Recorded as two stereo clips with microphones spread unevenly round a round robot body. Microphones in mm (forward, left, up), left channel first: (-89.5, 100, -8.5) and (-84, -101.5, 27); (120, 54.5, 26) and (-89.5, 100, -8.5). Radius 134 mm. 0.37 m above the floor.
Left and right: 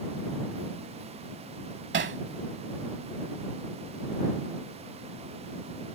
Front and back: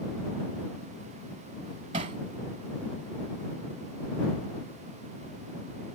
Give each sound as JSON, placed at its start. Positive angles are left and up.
{"t": 1.9, "sound": "hammering", "azimuth_deg": -125}